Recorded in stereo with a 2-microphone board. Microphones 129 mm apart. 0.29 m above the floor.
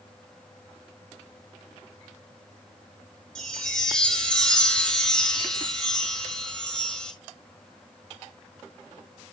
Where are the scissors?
I don't hear scissors.